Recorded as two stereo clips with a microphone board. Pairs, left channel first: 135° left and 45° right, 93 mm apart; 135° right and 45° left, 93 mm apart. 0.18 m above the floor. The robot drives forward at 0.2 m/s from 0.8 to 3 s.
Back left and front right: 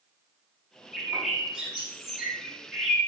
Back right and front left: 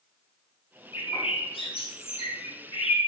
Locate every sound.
0.9 s a bird: 125° right, 6.5 m; by 3.1 s 130° right, 7 m